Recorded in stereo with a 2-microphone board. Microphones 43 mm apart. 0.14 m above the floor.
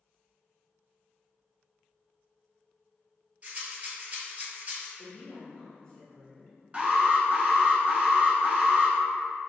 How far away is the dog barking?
No dog barking in this recording.